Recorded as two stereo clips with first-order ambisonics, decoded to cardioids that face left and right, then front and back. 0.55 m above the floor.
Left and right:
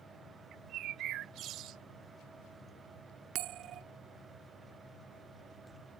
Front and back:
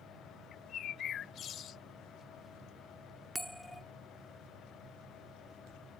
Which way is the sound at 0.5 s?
55° right.